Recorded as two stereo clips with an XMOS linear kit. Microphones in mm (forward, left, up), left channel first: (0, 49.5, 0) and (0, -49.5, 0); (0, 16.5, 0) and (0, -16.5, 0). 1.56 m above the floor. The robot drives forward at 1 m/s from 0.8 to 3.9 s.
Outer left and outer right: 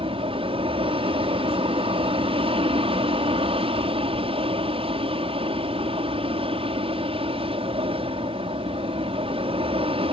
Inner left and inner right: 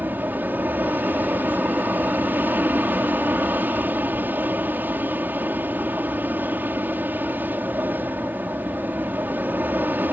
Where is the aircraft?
70° right (ahead or behind).